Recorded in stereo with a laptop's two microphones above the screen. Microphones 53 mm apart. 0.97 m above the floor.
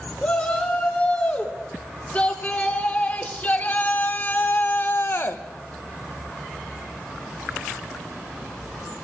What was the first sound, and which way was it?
A shout, 25° left (ahead or behind).